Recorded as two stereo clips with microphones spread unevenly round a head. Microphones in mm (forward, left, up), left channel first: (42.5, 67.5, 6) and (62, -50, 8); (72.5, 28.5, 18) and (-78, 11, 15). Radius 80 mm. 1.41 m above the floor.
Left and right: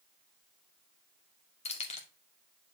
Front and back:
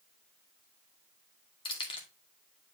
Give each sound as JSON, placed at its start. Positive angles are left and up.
{"t": 1.6, "sound": "keys jangling", "azimuth_deg": 65, "distance_m": 2.5}